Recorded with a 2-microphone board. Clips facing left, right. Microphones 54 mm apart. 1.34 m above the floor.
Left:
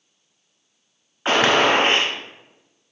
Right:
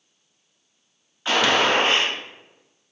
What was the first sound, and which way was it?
A gunshot, 40° left (ahead or behind).